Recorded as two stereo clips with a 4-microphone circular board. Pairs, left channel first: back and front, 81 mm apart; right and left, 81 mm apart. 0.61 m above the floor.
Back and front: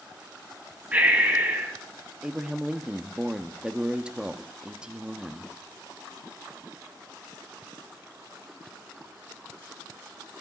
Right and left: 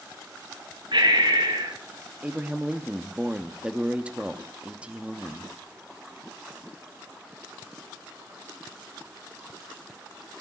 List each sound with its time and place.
0.9 s breathing: 70° left, 2.5 m
2.2 s a man speaking: 50° left, 0.7 m